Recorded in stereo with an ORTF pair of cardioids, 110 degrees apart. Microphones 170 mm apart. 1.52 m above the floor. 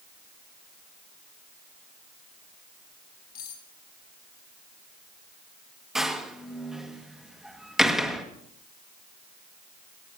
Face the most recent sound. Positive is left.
turn(degrees=0)